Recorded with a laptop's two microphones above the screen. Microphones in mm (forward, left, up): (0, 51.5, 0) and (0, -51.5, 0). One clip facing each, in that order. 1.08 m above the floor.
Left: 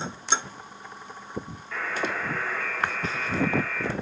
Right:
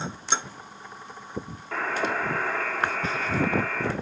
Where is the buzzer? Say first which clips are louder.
Right 3 dB; 55° right (ahead or behind), 1.5 m.